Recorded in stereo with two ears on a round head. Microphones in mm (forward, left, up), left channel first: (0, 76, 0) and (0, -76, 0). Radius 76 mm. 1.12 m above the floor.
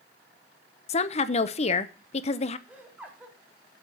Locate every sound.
0.9 s a woman speaking: 40° left (ahead or behind), 0.6 m
2.7 s laughter: 10° right (ahead or behind), 3 m